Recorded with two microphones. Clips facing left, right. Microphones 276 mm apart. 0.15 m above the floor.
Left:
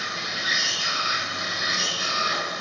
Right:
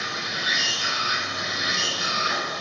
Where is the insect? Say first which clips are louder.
Right 2 dB; 75° right (ahead or behind), 1.9 m.